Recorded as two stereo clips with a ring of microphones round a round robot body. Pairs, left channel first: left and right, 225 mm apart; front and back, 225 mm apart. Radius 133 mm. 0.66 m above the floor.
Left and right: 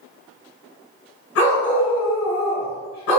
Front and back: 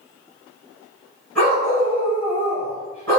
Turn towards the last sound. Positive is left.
turn(degrees=85)